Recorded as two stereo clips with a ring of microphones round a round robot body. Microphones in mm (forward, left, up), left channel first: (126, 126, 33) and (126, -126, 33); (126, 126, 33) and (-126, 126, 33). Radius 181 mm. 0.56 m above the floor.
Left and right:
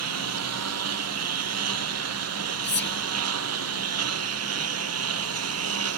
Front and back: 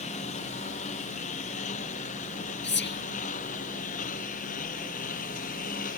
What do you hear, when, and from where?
0.0 s a lawn mower: 70° right
2.6 s whispering: 45° left